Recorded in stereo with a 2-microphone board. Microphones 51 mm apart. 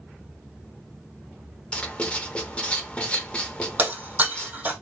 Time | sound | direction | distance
1.7 | writing | 25° left (ahead or behind) | 0.6 m
3.8 | breaking glass | 30° right (ahead or behind) | 2.0 m